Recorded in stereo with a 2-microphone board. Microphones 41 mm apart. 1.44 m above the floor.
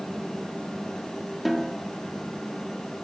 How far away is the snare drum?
About 1.4 m.